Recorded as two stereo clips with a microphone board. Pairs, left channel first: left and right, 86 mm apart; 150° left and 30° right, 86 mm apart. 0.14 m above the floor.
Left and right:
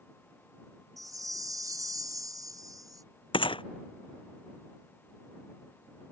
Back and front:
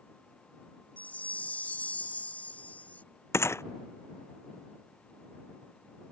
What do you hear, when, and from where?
1.0 s a chime: 140° right
3.3 s a gunshot: 90° left